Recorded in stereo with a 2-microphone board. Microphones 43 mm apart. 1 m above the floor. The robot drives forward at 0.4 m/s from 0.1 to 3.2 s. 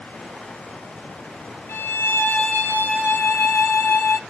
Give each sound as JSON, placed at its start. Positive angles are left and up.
{"t": 1.7, "sound": "a violin", "side_deg": 65, "distance_m": 1.6}